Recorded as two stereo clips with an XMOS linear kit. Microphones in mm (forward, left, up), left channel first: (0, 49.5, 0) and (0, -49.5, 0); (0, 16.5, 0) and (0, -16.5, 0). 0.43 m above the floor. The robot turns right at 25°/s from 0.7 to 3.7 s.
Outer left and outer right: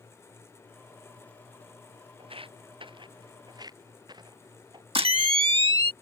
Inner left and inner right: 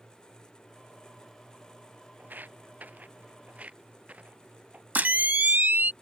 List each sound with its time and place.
2.2 s footsteps: 70° right (ahead or behind); by 4.8 s 50° right (ahead or behind)
5.0 s a camera shutter: 65° right (ahead or behind)